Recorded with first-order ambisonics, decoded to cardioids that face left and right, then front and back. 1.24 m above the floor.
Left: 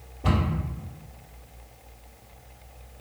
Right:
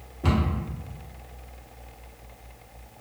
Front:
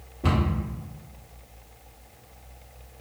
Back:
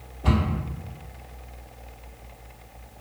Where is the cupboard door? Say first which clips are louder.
Even, even; 50° right, 1.2 m.